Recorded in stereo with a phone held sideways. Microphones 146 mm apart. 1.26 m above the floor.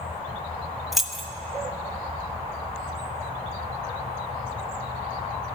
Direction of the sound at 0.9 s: Centre (ahead or behind).